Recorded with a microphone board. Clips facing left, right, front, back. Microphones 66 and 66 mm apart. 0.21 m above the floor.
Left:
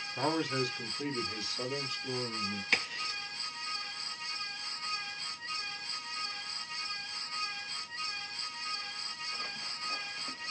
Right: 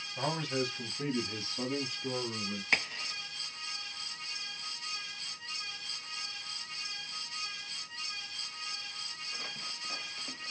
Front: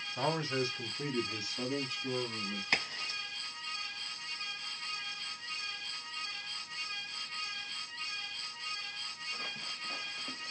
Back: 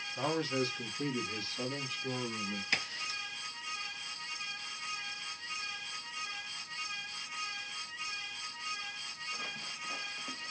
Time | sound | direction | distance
0.2 | a man speaking | 20° left | 1.2 m
2.7 | a crack | 35° right | 1.8 m